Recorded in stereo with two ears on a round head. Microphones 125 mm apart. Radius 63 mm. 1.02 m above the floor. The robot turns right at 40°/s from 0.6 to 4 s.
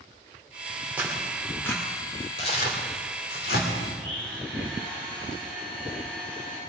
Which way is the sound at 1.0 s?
10° right (ahead or behind).